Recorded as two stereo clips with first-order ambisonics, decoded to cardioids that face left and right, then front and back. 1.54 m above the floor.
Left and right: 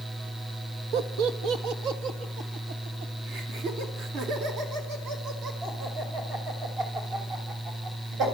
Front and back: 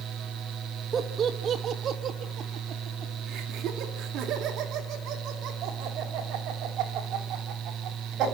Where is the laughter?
110° right, 1.4 m; by 8.2 s 135° right, 7 m.